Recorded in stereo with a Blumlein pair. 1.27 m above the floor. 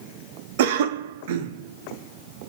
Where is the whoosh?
I don't hear a whoosh.